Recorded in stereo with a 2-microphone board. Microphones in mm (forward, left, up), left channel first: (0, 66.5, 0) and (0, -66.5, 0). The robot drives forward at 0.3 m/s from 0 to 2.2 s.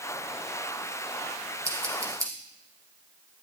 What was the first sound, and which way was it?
Scissors, 25° right (ahead or behind).